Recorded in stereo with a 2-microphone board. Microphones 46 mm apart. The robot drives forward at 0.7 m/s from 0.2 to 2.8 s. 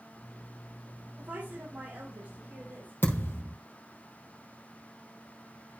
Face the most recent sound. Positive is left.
turn(degrees=60)  # may be behind; listen again after turning